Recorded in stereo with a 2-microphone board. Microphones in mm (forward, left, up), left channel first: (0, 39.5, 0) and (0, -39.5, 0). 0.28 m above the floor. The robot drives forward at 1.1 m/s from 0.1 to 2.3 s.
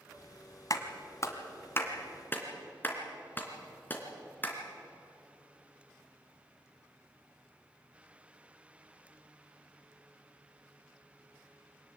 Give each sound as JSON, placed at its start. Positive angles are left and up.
{"t": 0.7, "sound": "a clap", "side_deg": 45, "distance_m": 1.7}